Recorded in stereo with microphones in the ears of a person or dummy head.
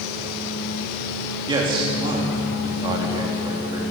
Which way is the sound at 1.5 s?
25° right (ahead or behind).